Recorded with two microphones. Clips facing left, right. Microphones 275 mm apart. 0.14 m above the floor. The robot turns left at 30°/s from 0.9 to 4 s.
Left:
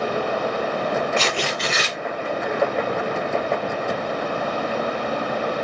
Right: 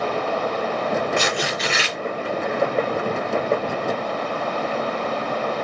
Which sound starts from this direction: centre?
Tearing paper, at 1.2 s.